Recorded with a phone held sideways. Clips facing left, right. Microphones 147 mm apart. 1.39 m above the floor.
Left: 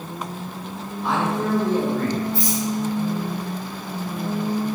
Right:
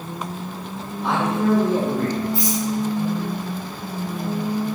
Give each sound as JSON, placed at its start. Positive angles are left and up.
{"t": 1.0, "sound": "a man speaking", "side_deg": -65, "distance_m": 1.6}
{"t": 2.3, "sound": "a rattle", "side_deg": -80, "distance_m": 2.5}